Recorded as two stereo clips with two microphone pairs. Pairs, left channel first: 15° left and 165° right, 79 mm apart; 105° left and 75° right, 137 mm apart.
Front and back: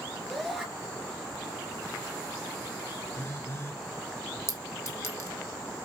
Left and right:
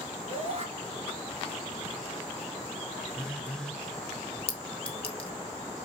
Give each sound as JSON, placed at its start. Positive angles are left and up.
{"t": 0.3, "sound": "a shout", "azimuth_deg": -80, "distance_m": 2.5}
{"t": 3.1, "sound": "a phone buzzing", "azimuth_deg": 30, "distance_m": 1.0}
{"t": 4.5, "sound": "a clink", "azimuth_deg": 65, "distance_m": 2.5}